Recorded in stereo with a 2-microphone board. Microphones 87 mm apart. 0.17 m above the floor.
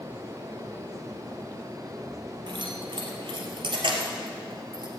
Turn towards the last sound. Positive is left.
turn(degrees=-60)  # may be behind; listen again after turning